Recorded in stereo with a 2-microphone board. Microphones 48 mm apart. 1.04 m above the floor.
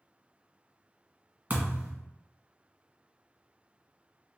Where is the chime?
No chime in this recording.